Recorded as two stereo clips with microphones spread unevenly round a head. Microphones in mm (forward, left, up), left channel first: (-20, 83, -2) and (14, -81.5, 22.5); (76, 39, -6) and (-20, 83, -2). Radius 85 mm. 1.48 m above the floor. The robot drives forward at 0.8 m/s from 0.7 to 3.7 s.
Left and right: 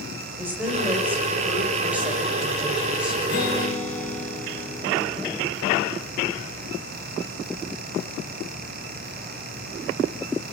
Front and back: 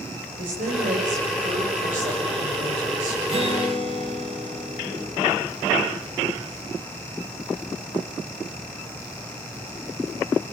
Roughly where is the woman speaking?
Behind.